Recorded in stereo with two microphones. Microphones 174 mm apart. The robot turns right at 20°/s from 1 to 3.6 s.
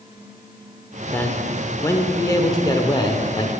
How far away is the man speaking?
About 0.8 m.